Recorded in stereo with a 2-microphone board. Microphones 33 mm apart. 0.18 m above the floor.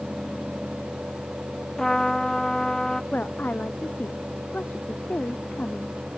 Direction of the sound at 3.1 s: 50° left (ahead or behind).